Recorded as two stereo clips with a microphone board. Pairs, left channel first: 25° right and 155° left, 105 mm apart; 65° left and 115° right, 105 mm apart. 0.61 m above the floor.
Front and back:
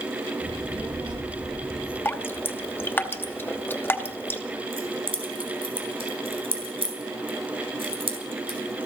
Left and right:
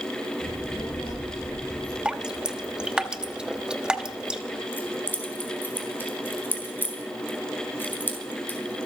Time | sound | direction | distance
0.4 | a child speaking | 105° left | 7 m
2.0 | dripping | 45° right | 0.9 m
4.7 | keys jangling | 135° left | 3.5 m